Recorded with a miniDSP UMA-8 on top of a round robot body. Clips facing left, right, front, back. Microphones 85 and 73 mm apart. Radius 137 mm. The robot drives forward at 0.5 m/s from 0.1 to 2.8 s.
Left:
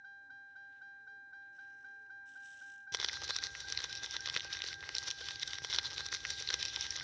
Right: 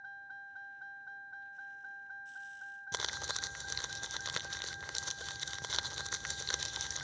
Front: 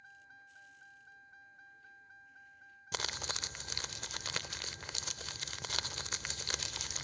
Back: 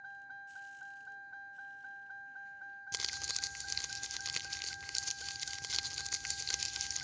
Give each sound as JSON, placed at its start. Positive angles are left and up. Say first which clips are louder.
{"t": 0.0, "sound": "a vehicle", "louder": "right 6 dB, back 9 dB", "azimuth_deg": -140}
{"t": 2.9, "sound": "crumpling", "louder": "right 4 dB, front 10 dB", "azimuth_deg": -35}